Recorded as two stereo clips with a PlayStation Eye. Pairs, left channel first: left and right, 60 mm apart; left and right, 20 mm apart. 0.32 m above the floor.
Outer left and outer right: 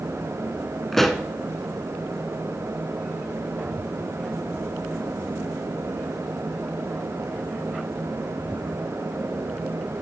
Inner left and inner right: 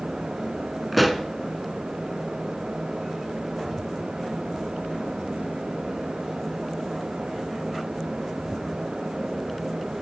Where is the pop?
5° left (ahead or behind), 0.7 m.